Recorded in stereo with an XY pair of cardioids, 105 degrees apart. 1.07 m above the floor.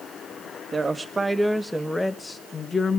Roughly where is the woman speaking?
Ahead right.